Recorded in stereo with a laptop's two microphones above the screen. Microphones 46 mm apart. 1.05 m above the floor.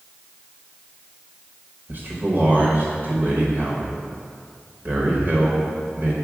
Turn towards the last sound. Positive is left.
turn(degrees=-45)  # may be behind; listen again after turning